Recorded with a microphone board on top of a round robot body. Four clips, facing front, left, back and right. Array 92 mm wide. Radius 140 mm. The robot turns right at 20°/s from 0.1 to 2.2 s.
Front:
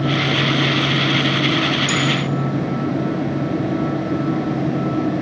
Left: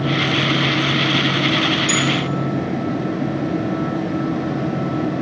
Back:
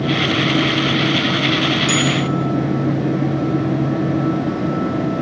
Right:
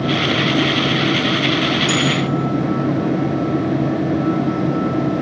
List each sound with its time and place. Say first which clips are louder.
1.9 s a bell: right 1 dB, back 2 dB; 125° right, 2.5 m; by 2.1 s 120° right, 2.5 m